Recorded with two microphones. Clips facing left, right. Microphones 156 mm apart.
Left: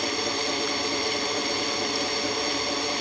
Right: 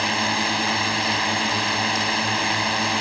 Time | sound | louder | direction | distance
0.0 | a drone | right 4 dB | 75° right (ahead or behind) | ?